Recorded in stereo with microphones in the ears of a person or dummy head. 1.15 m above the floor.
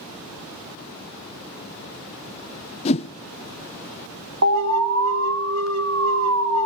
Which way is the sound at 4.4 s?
75° right (ahead or behind).